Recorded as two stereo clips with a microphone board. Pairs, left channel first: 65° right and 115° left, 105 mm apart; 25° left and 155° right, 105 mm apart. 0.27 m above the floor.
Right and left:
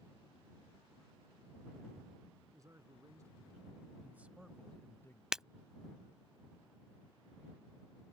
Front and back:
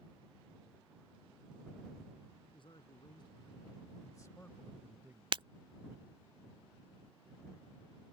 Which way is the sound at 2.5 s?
55° left.